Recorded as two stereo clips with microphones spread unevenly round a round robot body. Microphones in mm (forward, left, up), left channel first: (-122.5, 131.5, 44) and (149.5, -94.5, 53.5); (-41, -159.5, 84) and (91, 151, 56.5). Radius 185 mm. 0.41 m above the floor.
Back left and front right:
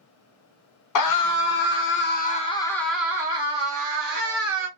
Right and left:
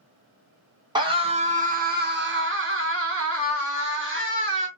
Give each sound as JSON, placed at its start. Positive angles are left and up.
{"t": 0.9, "sound": "a scream", "azimuth_deg": 140, "distance_m": 1.4}